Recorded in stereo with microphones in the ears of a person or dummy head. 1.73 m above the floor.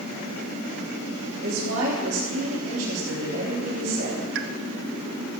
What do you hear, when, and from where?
1.4 s a woman speaking: 80° right, 4 m
4.3 s a pop: 65° right (ahead or behind), 0.9 m